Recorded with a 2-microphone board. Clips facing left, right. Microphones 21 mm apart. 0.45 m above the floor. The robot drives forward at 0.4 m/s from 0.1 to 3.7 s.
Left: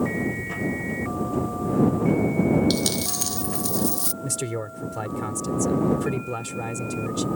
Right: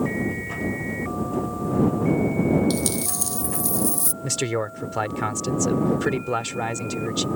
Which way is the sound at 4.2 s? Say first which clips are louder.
Right 7 dB; 35° right (ahead or behind).